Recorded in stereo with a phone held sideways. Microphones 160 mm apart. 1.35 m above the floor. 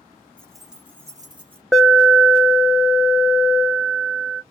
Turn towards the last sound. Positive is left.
turn(degrees=0)  # may be behind; listen again after turning